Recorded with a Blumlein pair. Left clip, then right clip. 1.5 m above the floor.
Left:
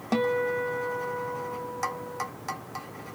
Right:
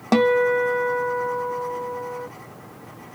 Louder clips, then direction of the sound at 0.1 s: Right 8 dB; 25° right.